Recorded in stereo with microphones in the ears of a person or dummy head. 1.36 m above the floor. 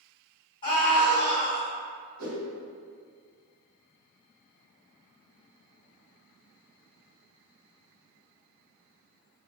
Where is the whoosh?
70° right (ahead or behind), 1.1 m.